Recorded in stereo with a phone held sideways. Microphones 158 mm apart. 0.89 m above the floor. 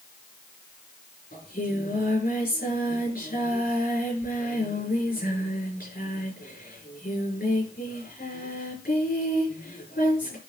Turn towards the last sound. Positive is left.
turn(degrees=75)  # may be behind; listen again after turning